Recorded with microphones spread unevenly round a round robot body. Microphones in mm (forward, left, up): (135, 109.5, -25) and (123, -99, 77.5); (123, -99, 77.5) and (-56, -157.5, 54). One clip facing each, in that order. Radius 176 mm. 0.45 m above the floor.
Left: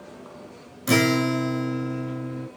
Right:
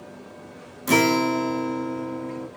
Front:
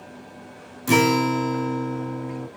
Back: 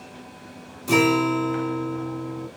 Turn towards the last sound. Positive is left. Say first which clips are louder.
# even, even
turn(degrees=25)